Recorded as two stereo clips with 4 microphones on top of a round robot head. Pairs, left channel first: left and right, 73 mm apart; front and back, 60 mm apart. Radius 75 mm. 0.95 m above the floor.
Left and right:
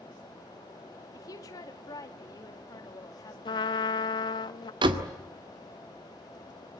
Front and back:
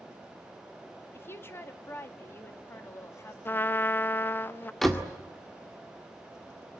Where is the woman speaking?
45° left, 2 m.